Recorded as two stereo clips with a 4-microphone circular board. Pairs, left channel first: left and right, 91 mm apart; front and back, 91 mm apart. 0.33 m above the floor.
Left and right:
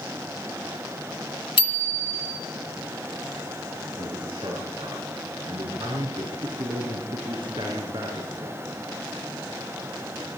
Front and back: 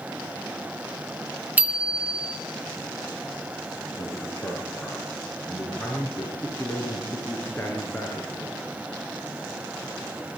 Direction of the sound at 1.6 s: 110° left.